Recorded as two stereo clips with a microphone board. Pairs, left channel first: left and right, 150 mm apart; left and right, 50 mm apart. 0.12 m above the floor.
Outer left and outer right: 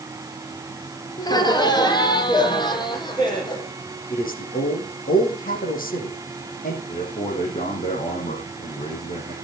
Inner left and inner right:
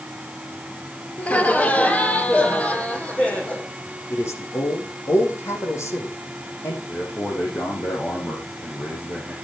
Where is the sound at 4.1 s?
70° left (ahead or behind), 6.5 m.